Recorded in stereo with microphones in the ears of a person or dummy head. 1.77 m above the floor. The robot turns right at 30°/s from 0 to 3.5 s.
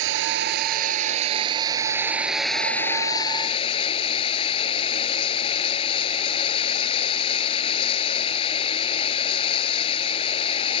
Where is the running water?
75° right; by 10.8 s 30° left.